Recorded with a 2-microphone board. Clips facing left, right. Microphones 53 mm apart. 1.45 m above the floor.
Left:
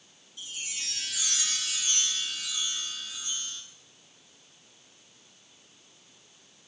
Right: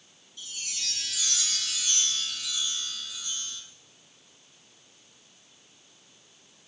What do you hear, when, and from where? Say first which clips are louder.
0.4 s a chime: even; 15° left (ahead or behind), 2.5 m